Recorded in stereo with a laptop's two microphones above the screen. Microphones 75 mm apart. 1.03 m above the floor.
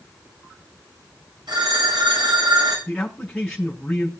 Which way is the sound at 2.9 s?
5° left (ahead or behind).